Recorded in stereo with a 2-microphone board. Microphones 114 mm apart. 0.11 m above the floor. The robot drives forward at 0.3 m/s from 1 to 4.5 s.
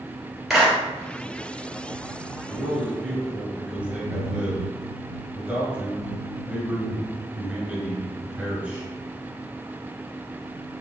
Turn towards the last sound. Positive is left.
turn(degrees=-15)  # may be behind; listen again after turning